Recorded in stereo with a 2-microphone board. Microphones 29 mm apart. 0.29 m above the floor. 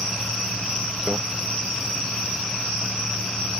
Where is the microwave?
35° right (ahead or behind).